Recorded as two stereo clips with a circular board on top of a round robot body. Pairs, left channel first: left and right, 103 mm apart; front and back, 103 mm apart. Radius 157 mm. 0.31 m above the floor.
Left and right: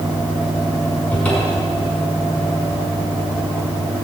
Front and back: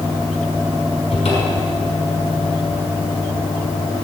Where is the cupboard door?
10° left, 5.5 m.